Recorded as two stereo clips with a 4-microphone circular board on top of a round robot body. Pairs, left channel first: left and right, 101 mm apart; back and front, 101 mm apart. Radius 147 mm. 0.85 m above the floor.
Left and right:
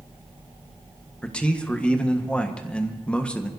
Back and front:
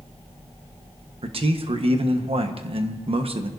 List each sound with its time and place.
1.2 s a man speaking: 10° left, 1.4 m